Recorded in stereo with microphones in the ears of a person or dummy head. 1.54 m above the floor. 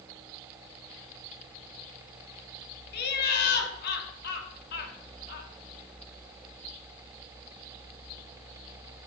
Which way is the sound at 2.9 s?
60° left (ahead or behind).